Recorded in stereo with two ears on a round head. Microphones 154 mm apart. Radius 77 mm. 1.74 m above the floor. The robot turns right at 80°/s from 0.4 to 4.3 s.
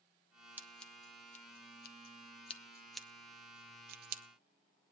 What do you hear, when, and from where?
0.6 s scissors: 10° right (ahead or behind), 0.7 m; by 4.2 s 60° right (ahead or behind), 0.7 m